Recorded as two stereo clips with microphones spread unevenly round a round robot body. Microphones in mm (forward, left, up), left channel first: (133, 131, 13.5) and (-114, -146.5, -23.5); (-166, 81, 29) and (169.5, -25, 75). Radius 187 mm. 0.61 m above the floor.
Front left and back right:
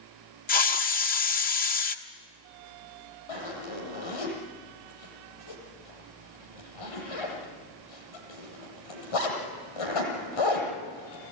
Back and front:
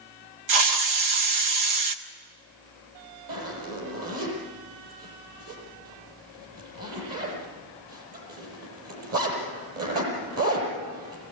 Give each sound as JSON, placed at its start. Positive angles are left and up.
{"t": 0.5, "sound": "a hiss", "azimuth_deg": -15, "distance_m": 1.5}
{"t": 3.3, "sound": "a zipper", "azimuth_deg": 30, "distance_m": 8.0}